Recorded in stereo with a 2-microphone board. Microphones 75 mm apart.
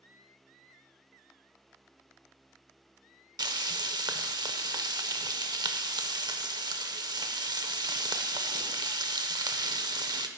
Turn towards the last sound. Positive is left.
turn(degrees=-65)  # may be behind; listen again after turning